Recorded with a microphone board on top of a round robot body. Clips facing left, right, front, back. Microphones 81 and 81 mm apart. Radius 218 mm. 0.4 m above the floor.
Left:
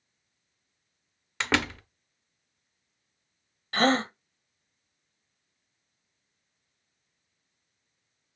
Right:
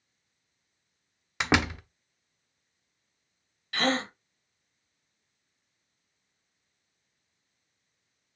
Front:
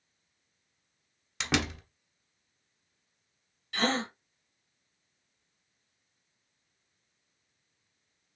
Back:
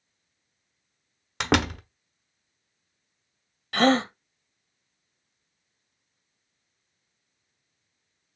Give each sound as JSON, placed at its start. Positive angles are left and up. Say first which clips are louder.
{"t": 1.4, "sound": "a door slam", "louder": "right 2 dB, back 7 dB", "azimuth_deg": -165, "distance_m": 0.9}
{"t": 3.7, "sound": "a gasp", "louder": "left 4 dB, back 9 dB", "azimuth_deg": 150, "distance_m": 0.5}